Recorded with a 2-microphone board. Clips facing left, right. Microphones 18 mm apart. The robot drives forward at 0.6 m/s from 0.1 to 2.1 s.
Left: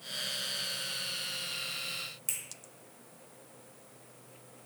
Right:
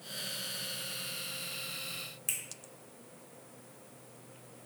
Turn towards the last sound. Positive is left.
turn(degrees=-20)  # may be behind; listen again after turning